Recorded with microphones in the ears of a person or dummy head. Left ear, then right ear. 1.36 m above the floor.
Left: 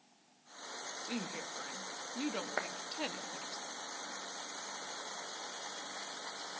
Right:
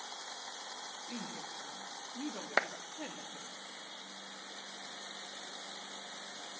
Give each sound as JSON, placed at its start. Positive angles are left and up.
{"t": 1.0, "sound": "a woman speaking", "side_deg": 85, "distance_m": 2.0}
{"t": 2.6, "sound": "a clap", "side_deg": -80, "distance_m": 1.2}